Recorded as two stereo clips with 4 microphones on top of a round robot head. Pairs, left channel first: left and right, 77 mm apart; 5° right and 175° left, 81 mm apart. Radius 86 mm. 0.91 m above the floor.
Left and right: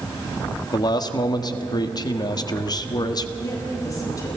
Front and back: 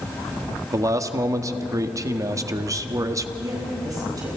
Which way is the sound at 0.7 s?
125° left.